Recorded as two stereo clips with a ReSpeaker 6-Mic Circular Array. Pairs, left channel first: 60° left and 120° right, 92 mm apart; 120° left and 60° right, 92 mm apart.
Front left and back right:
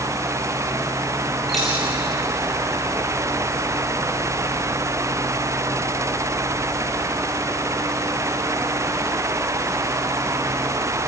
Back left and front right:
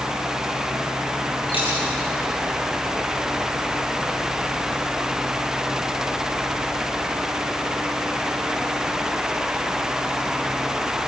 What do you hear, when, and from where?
1.5 s a dropped coin: 145° left, 7.5 m